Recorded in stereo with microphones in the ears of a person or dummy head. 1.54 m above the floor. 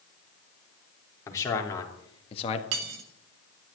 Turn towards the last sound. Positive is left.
turn(degrees=-55)  # may be behind; listen again after turning